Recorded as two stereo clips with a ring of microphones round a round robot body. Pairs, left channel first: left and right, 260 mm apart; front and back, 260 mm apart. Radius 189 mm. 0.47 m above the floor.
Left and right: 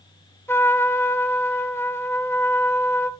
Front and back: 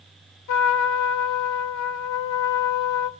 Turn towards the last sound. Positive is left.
turn(degrees=10)